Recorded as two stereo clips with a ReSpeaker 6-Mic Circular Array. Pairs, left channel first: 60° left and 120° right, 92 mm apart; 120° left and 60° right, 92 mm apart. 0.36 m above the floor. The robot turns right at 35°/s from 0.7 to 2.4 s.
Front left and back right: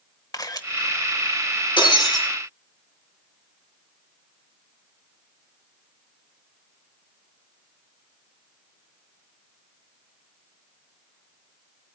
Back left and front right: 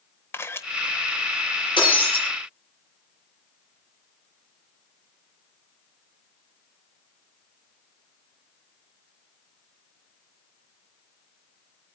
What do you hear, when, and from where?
0.3 s a camera shutter: 75° left, 1.0 m
1.8 s breaking glass: 90° left, 5 m; by 2.2 s 110° left, 5 m